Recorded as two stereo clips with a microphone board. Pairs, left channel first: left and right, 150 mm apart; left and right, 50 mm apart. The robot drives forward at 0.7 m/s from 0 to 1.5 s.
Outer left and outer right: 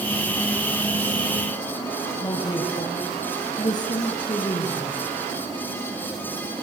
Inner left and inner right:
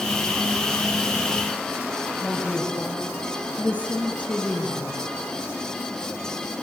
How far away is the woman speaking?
About 5.5 m.